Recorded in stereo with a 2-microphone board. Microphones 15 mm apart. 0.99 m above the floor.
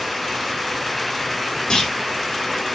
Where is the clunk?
60° left (ahead or behind), 3 m.